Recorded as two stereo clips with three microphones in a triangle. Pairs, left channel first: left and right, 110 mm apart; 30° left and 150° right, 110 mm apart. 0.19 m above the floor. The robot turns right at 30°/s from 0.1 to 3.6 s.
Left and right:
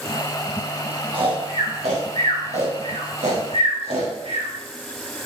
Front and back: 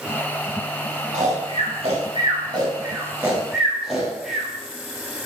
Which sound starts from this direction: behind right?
Snoring, at 1.1 s.